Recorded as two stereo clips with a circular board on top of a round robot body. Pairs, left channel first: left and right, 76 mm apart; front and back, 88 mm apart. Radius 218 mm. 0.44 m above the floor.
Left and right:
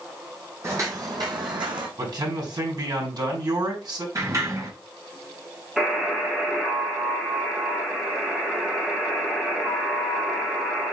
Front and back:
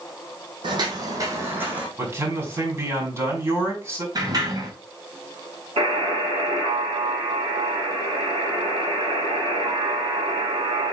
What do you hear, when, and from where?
0.6 s footsteps: 145° right, 1.6 m; by 1.9 s 105° right, 1.8 m
2.0 s a man speaking: 120° right, 4.5 m
4.2 s a sliding door: 135° right, 3 m
5.8 s a buzzer: 170° right, 3 m